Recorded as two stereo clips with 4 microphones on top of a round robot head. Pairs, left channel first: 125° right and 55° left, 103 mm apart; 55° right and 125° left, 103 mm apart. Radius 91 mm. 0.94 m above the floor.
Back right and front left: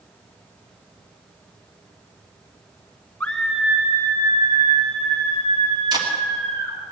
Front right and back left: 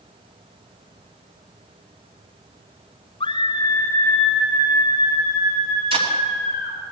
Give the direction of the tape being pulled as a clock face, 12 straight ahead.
9 o'clock.